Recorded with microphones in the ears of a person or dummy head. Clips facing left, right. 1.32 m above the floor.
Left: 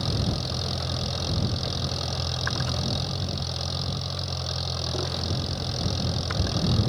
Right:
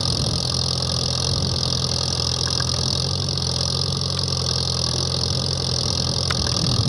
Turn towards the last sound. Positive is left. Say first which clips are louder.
# right 2 dB
turn(degrees=-75)  # may be behind; listen again after turning